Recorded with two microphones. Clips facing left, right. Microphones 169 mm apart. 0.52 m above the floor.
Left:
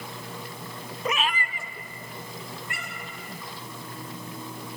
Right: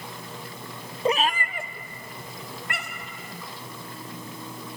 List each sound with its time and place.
1.1 s a cat meowing: 25° right (ahead or behind), 0.6 m; by 3.1 s 75° right (ahead or behind), 2.5 m